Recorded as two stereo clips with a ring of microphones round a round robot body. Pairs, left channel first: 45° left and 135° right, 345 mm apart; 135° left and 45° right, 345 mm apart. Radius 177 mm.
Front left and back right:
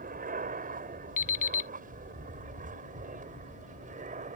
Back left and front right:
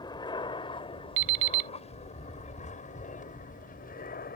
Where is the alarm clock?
20° right.